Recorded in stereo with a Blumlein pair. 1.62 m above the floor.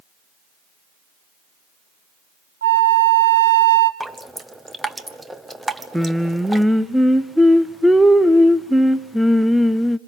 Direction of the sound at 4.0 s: 5° right.